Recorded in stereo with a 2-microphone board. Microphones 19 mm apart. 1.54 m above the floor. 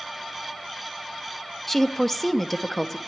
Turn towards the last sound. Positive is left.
turn(degrees=10)  # may be behind; listen again after turning